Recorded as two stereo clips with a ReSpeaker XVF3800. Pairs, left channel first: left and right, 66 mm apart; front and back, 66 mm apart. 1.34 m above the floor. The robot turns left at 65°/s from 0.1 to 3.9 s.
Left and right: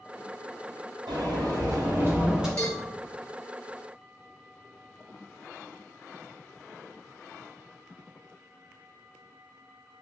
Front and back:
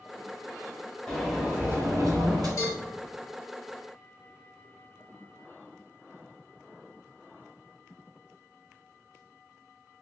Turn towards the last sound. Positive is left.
turn(degrees=-65)